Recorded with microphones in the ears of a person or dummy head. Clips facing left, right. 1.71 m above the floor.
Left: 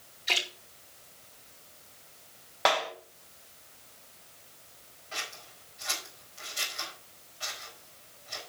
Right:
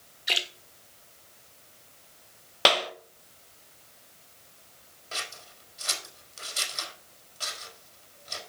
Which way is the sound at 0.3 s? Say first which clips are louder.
Even; 15° right (ahead or behind).